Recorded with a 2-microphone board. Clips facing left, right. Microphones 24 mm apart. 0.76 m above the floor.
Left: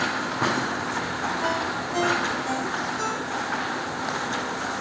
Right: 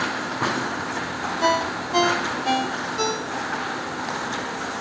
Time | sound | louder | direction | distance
1.4 | a ringtone | right 4 dB | 60° right (ahead or behind) | 0.6 m